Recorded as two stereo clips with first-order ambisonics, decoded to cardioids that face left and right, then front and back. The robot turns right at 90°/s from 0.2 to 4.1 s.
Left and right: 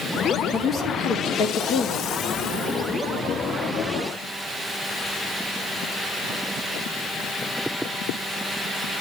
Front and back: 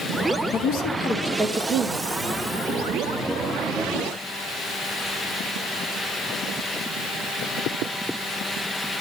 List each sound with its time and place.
0.5 s a woman speaking: 5° left, 1.8 m; by 2.1 s 145° left, 1.8 m